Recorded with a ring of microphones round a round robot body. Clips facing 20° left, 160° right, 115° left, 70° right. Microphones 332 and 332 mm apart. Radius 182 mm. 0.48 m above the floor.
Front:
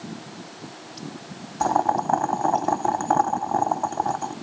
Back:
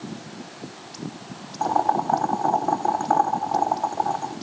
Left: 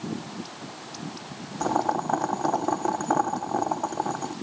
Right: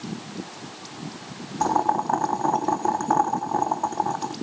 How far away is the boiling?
About 1.1 m.